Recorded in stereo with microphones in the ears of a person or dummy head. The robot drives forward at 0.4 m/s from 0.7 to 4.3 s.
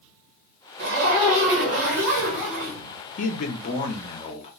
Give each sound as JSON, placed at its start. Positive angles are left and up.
{"t": 0.8, "sound": "a zipper", "side_deg": -55, "distance_m": 1.5}
{"t": 3.2, "sound": "a man speaking", "side_deg": 50, "distance_m": 0.8}